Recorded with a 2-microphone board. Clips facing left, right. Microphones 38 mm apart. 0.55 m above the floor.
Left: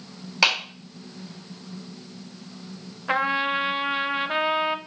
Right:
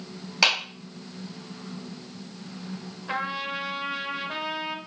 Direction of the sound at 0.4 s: 5° left (ahead or behind).